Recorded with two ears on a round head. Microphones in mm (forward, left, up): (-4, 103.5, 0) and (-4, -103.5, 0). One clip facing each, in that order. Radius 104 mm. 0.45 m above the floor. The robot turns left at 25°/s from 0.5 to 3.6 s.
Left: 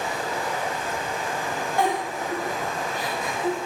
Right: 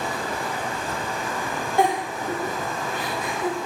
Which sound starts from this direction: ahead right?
Running water, at 0.0 s.